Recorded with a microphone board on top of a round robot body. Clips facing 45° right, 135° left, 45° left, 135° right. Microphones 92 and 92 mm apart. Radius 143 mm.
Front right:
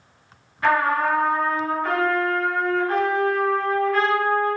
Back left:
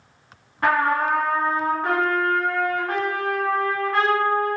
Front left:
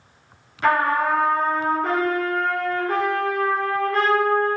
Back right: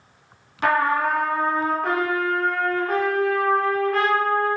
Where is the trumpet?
175° right, 1.2 m.